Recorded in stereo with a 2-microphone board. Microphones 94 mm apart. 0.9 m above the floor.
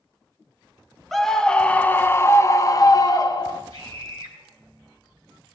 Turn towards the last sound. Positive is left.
turn(degrees=45)  # may be behind; listen again after turning